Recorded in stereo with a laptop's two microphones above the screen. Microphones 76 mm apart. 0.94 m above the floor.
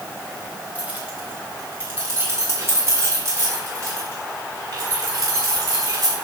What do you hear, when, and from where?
0.8 s keys jangling: 20° right (ahead or behind), 3 m; by 6.1 s 45° right (ahead or behind), 7 m